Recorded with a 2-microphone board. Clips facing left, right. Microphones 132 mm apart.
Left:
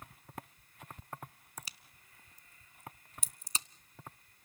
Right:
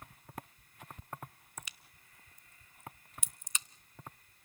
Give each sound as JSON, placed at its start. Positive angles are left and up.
{"t": 1.6, "sound": "a crack", "side_deg": 35, "distance_m": 0.5}